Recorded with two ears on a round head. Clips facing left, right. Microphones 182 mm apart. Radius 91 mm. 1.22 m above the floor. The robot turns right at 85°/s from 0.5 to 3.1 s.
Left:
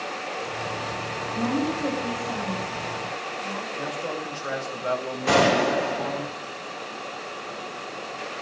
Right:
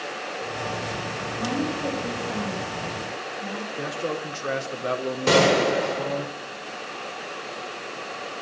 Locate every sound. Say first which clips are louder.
1.4 s a woman speaking: left 2 dB; 120° left, 8 m; by 3.7 s 90° right, 8 m
3.8 s a man speaking: right 3 dB; 45° right (ahead or behind), 4 m
5.3 s a gunshot: right 1 dB; 55° right (ahead or behind), 4.5 m